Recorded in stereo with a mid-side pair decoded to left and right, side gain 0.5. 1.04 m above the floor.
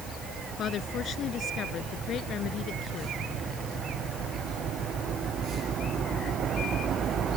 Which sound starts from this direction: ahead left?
A woman speaking, at 0.6 s.